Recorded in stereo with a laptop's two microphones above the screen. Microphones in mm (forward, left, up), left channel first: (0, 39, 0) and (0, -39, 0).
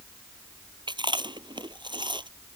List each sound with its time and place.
0.9 s chewing: 85° right